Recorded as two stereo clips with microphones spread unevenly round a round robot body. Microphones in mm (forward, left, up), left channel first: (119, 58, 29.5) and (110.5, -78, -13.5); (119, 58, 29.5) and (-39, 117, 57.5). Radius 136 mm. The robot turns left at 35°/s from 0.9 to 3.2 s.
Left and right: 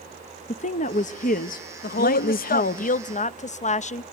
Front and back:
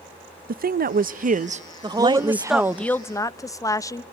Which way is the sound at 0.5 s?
135° left.